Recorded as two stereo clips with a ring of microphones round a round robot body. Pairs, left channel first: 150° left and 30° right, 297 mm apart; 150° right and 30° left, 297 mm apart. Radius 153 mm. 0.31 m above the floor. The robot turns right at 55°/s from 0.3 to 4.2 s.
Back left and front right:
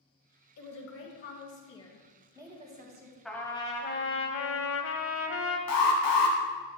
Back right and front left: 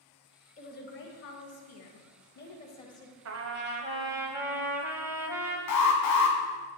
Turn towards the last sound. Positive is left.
turn(degrees=-175)